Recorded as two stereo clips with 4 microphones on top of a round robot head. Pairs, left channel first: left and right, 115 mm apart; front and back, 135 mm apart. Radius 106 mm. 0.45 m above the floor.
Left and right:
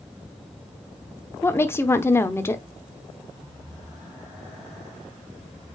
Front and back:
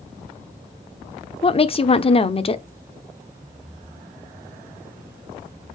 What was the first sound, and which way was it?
A woman speaking, 25° left.